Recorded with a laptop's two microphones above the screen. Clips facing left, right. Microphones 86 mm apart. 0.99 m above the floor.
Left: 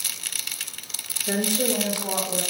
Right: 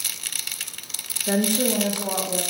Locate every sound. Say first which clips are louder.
1.3 s a woman speaking: right 3 dB; 40° right (ahead or behind), 0.7 m; by 2.4 s 60° right (ahead or behind), 1.5 m